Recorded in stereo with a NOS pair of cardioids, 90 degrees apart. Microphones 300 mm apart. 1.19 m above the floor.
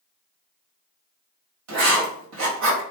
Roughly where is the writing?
Ahead right.